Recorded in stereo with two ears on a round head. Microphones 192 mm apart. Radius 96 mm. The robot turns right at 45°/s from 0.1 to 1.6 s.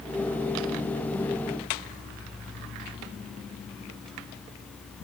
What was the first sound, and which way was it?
Only background noise.